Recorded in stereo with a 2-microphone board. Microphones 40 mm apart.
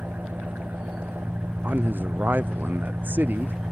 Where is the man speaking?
50° right (ahead or behind).